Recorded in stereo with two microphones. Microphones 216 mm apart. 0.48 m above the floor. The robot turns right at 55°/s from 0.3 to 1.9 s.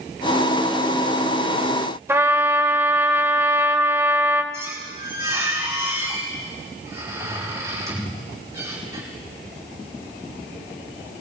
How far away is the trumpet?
About 1.0 m.